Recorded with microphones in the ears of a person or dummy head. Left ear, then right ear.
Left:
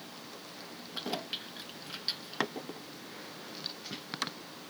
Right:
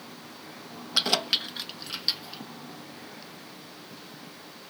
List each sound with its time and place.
0.9 s keys jangling: 70° right (ahead or behind); by 2.4 s 10° right (ahead or behind)